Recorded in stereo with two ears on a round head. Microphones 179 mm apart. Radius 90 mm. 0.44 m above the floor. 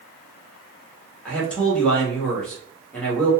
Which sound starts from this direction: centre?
A man speaking, at 1.2 s.